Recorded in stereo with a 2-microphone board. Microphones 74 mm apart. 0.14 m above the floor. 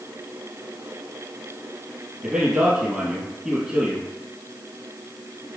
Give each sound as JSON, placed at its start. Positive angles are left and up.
{"t": 2.2, "sound": "a man speaking", "side_deg": -10, "distance_m": 3.0}